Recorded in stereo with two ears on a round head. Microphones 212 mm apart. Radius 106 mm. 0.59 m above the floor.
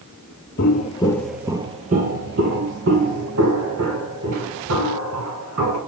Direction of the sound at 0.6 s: 45° left (ahead or behind).